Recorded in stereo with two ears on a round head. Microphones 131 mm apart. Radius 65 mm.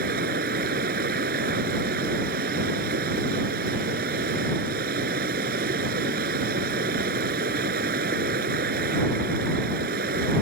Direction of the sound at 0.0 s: 70° right (ahead or behind).